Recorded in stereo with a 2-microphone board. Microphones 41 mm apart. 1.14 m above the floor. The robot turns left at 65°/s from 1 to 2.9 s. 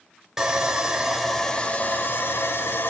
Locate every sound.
0.4 s sawing: 165° right, 2.5 m; by 2.9 s 70° left, 2.5 m